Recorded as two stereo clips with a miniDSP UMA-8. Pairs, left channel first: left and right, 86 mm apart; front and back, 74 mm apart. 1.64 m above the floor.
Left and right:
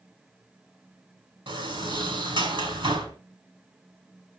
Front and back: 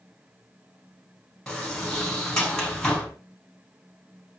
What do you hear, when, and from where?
1.5 s a sliding door: 80° right, 5 m